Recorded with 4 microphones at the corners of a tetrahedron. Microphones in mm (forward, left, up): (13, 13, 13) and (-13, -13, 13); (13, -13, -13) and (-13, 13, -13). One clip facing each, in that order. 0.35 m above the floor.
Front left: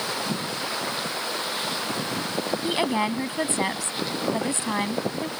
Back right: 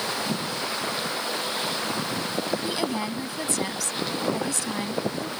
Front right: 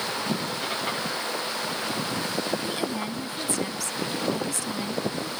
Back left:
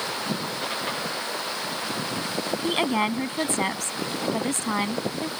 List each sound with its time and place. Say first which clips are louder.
2.6 s a woman speaking: front left 4 dB, back left 6 dB; 100° left